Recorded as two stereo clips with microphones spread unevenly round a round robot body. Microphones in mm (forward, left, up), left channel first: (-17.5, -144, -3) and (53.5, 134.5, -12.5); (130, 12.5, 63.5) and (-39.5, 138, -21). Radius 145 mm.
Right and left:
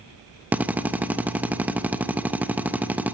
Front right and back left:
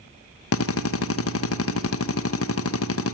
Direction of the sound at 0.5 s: 10° right.